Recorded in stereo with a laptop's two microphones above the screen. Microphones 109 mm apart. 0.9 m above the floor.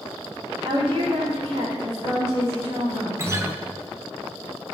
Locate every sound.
0.6 s a woman speaking: 55° right (ahead or behind), 2.5 m; by 3.1 s 25° right (ahead or behind), 2.5 m
3.2 s a guitar: 25° right (ahead or behind), 0.7 m